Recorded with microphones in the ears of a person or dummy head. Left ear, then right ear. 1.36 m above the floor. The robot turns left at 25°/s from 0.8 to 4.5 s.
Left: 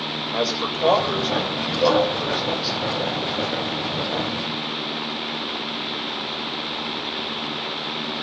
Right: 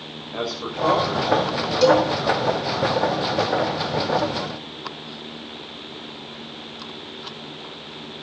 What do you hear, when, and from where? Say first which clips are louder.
0.3 s a man speaking: left 2 dB; 95° left, 6.5 m; by 2.8 s 45° left, 6.5 m
1.8 s a cowbell: right 2 dB; 40° right (ahead or behind), 9 m; by 2.1 s 45° right (ahead or behind), 9 m